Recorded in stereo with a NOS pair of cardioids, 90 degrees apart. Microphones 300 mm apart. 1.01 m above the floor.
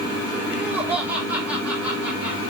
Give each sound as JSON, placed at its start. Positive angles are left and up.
{"t": 0.5, "sound": "laughter", "azimuth_deg": -5, "distance_m": 2.5}